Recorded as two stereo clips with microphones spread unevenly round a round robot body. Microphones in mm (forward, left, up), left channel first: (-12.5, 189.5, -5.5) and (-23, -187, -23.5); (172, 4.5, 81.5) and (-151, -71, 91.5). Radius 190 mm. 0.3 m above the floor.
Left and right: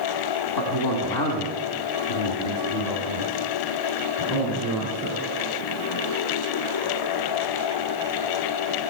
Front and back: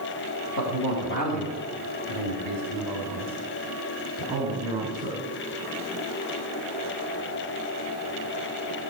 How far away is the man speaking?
About 3 m.